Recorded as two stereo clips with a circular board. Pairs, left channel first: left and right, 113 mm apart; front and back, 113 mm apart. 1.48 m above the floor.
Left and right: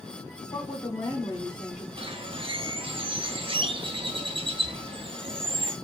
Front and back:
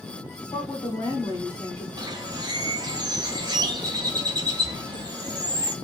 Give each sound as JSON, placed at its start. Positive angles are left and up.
{"t": 0.5, "sound": "a woman speaking", "azimuth_deg": 35, "distance_m": 1.5}
{"t": 2.0, "sound": "a bird", "azimuth_deg": -130, "distance_m": 0.5}